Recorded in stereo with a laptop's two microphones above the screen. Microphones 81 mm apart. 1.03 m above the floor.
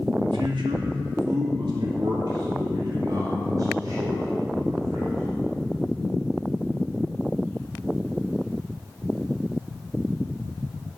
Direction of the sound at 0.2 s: 70° right (ahead or behind).